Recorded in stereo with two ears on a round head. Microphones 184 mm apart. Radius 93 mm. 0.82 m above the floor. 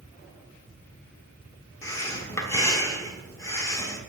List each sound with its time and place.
1.8 s breathing: 15° left (ahead or behind), 1.2 m